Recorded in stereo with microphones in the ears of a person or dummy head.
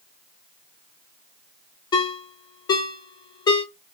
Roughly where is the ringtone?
Left.